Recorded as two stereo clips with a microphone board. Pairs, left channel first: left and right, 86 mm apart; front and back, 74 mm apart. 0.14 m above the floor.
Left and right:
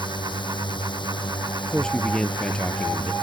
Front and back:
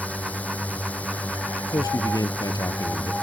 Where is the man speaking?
10° left.